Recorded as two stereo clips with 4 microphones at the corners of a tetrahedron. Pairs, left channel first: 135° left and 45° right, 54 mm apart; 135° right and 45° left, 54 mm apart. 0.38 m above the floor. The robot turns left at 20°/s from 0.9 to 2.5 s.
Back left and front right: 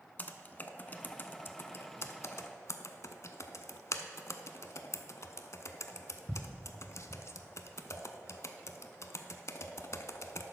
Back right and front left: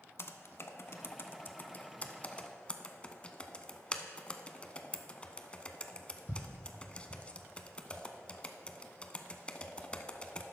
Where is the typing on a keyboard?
170° right, 0.6 m; by 10.4 s 160° left, 0.6 m.